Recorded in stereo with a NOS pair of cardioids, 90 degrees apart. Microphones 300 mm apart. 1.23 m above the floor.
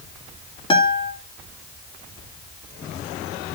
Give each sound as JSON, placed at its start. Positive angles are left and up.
{"t": 0.7, "sound": "a guitar", "azimuth_deg": 20, "distance_m": 2.5}